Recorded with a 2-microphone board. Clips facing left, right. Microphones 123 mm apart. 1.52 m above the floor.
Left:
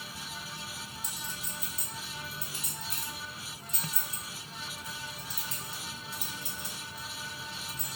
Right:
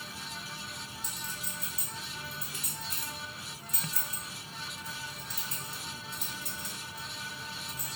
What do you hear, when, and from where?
1.0 s a clink: 30° left (ahead or behind), 1.3 m